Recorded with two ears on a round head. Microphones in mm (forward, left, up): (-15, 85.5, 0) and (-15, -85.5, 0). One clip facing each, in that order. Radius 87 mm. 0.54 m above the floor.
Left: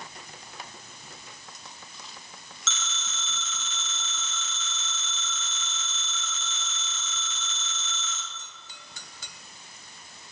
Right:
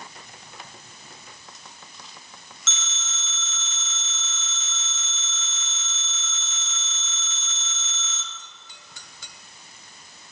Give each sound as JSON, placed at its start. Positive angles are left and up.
{"t": 2.7, "sound": "a phone ringing", "side_deg": 70, "distance_m": 2.5}